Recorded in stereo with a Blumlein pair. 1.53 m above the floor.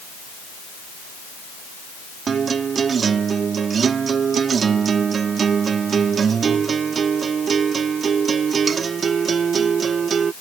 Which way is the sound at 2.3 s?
20° right.